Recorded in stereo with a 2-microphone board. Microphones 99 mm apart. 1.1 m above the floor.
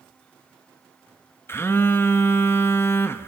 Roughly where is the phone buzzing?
Left.